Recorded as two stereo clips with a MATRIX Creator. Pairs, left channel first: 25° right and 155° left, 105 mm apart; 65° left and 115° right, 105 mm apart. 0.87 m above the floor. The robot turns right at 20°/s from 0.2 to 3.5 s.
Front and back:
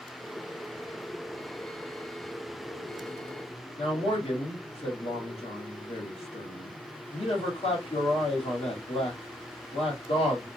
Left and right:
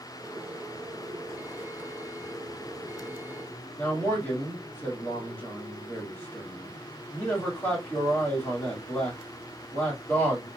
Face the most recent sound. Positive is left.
turn(degrees=-5)